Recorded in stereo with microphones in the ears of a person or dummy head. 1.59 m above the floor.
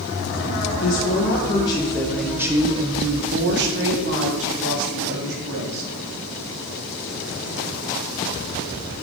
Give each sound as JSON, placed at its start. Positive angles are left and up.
{"t": 0.8, "sound": "a woman speaking", "side_deg": 45, "distance_m": 2.0}